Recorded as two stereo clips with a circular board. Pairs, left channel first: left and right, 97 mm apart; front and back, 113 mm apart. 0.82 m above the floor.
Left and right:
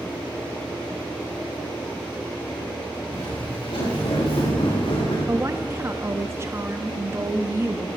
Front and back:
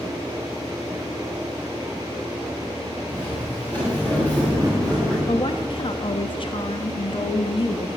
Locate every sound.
3.1 s footsteps: 70° left, 7 m; by 5.2 s 80° left, 6.5 m
5.3 s a woman speaking: 30° right, 0.9 m